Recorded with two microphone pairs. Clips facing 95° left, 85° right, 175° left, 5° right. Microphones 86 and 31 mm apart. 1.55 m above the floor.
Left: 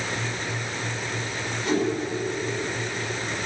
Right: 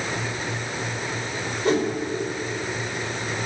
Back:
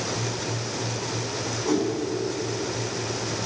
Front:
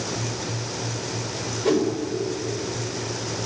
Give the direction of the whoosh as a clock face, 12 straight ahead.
1 o'clock.